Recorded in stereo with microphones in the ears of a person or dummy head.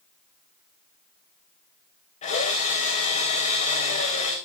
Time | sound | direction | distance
2.2 | a drill | 40° left (ahead or behind) | 3.5 m